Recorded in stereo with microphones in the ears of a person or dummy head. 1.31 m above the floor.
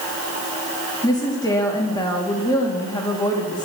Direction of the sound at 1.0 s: 15° left (ahead or behind).